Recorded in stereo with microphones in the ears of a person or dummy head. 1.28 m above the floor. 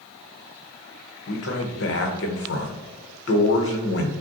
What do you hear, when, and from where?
1.3 s a man speaking: 65° left (ahead or behind), 0.9 m